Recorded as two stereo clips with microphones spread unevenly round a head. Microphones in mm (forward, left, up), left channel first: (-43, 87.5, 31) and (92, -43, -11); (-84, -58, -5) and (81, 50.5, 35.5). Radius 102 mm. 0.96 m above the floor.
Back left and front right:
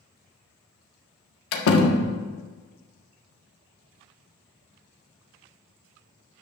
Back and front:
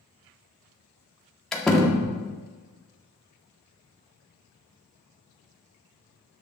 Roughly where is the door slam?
Behind left.